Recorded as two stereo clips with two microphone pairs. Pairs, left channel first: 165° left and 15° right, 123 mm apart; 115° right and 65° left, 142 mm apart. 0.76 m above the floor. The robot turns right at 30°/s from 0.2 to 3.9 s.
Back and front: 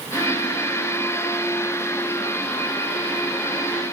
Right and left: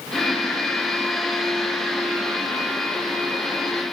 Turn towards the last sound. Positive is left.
No sound to turn to.